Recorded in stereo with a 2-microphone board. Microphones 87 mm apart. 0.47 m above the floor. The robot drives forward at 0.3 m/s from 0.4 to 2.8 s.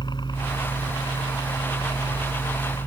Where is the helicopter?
55° left (ahead or behind).